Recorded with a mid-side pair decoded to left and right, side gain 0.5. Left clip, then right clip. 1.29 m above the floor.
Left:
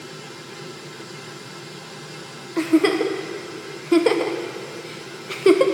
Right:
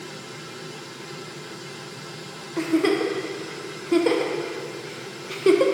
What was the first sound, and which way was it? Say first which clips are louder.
A giggle: left 3 dB; 25° left.